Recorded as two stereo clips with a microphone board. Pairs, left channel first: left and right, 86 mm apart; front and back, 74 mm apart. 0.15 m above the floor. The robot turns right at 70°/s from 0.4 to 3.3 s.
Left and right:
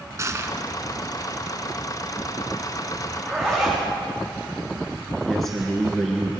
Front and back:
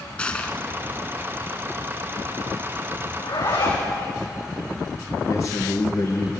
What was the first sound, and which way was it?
Crushing, 65° right.